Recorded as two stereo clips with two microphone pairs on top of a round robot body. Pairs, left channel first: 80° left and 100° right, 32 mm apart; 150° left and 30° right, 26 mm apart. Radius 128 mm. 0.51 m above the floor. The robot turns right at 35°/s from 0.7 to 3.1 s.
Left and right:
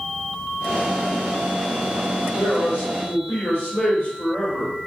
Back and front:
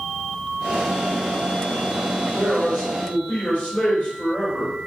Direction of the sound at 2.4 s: 90° left.